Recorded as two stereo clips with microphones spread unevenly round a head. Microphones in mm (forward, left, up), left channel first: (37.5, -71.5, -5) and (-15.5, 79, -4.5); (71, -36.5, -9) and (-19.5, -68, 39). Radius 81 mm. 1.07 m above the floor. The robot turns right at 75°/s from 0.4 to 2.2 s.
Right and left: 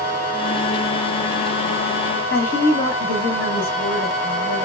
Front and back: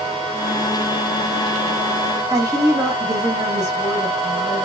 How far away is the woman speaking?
About 1.5 m.